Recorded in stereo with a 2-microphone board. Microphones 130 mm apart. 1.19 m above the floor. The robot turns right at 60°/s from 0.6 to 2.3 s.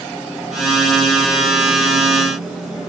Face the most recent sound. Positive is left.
No sound to turn to.